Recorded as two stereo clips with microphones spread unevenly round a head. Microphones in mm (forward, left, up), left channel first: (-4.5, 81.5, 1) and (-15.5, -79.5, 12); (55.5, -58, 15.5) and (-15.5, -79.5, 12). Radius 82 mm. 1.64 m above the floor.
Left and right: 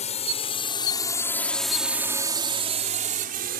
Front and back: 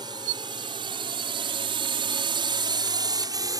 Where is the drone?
135° left; by 3.6 s 125° right.